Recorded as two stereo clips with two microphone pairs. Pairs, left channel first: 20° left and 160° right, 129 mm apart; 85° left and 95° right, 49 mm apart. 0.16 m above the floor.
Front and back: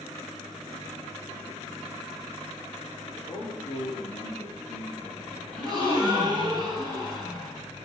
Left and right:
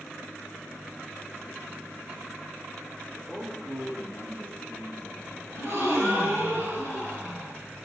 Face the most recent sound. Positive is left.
turn(degrees=-110)